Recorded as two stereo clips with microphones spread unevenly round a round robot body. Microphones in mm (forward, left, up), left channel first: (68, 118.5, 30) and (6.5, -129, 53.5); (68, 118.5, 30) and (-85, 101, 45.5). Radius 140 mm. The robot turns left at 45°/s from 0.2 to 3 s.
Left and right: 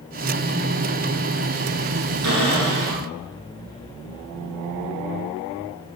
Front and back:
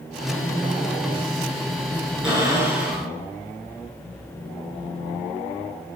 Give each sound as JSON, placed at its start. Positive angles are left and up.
{"t": 2.2, "sound": "a cupboard door", "azimuth_deg": -85, "distance_m": 7.0}